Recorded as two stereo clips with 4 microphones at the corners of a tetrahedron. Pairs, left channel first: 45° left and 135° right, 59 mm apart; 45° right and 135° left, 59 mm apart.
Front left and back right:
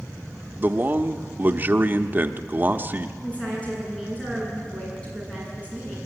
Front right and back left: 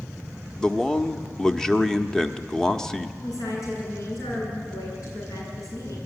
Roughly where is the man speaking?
Behind right.